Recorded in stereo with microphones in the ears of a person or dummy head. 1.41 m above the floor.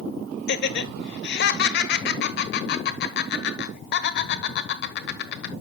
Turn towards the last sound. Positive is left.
turn(degrees=50)  # may be behind; listen again after turning